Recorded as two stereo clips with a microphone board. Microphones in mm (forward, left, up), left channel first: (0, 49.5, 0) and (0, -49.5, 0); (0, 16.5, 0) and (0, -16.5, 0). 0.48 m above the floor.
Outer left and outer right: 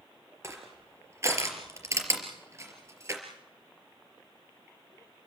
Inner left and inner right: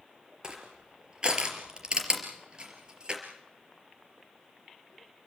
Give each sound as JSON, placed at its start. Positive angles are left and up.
{"t": 0.4, "sound": "crushing", "side_deg": -30, "distance_m": 4.0}